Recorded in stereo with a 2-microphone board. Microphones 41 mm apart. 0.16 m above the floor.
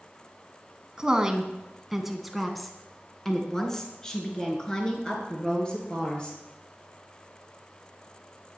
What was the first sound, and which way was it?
A woman speaking, 20° right (ahead or behind).